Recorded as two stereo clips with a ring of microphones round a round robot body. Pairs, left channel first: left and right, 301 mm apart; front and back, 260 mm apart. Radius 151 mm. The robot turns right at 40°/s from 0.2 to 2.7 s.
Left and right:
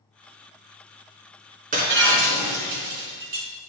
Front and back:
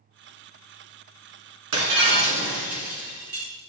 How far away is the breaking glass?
About 1.9 m.